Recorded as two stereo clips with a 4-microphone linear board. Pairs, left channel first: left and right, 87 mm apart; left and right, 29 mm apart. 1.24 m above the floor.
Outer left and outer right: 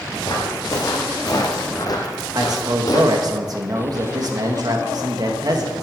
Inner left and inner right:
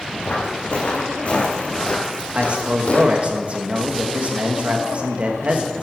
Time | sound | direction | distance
0.2 | footsteps | 45° left (ahead or behind) | 3 m
2.3 | a man speaking | 50° right (ahead or behind) | 1.9 m